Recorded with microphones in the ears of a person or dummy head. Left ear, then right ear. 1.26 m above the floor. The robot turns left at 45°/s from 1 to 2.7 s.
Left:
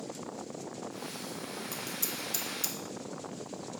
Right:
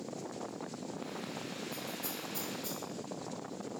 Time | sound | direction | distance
1.7 | scissors | 55° left (ahead or behind) | 0.6 m